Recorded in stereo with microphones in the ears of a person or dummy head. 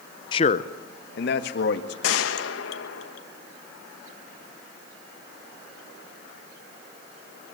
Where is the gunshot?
70° left (ahead or behind), 1.3 m.